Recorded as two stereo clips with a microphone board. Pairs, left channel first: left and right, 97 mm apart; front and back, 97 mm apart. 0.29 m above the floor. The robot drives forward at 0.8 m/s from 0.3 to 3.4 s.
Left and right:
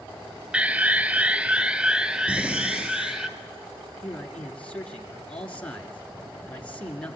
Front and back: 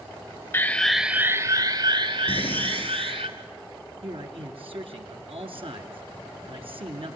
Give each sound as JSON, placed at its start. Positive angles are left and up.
{"t": 0.5, "sound": "an alarm", "azimuth_deg": -30, "distance_m": 0.7}
{"t": 2.3, "sound": "breathing", "azimuth_deg": -15, "distance_m": 6.5}
{"t": 4.0, "sound": "a man speaking", "azimuth_deg": 165, "distance_m": 4.0}